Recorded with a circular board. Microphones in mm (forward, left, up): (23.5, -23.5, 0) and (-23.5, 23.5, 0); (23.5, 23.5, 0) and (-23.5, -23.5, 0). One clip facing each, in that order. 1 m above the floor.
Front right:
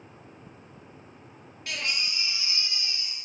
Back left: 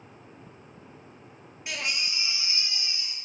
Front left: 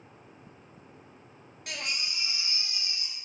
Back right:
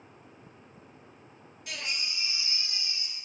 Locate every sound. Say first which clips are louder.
1.7 s a baby crying: even, front left 1 dB; 60° left, 0.5 m